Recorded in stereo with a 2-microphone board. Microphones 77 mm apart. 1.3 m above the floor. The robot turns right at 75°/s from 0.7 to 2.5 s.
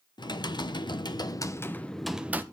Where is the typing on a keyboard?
80° left, 0.8 m; by 2.4 s 150° right, 0.8 m.